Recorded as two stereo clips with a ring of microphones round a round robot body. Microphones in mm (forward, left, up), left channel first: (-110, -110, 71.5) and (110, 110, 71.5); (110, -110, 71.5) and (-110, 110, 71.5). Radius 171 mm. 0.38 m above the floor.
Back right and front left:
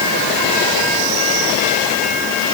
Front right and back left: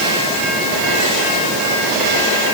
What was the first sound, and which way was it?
Only background noise.